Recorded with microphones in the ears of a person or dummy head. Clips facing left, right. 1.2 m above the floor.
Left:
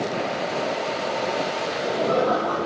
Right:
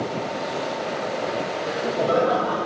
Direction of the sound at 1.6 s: 20° right (ahead or behind).